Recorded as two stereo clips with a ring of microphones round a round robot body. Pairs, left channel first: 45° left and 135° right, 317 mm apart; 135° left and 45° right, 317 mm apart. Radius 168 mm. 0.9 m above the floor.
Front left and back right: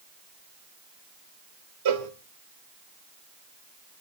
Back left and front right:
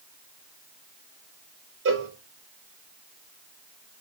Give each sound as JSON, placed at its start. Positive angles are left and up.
{"t": 1.9, "sound": "a cowbell", "azimuth_deg": -95, "distance_m": 2.5}